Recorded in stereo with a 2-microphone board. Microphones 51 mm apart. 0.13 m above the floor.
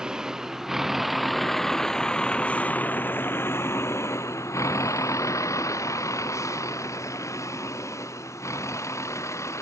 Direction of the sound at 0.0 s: 15° right (ahead or behind).